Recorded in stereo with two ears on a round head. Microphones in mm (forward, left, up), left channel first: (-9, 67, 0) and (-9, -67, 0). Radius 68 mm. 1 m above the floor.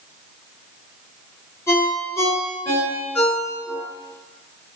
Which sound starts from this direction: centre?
A ringtone, at 1.7 s.